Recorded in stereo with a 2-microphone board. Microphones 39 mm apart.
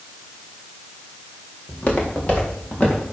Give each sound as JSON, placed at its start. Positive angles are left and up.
{"t": 1.7, "sound": "footsteps", "side_deg": 35, "distance_m": 3.0}